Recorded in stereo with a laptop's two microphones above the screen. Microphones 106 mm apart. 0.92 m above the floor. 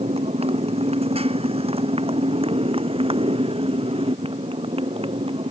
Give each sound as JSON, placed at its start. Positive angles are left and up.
{"t": 0.0, "sound": "a motorcycle", "side_deg": -70}